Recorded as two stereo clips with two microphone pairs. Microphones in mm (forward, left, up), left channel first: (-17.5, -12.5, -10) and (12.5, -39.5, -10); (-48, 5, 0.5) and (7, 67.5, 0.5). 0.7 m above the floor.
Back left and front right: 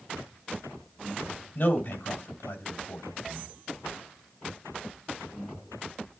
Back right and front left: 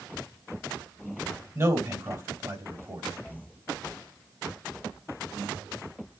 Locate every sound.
1.6 s a man speaking: 100° left, 3 m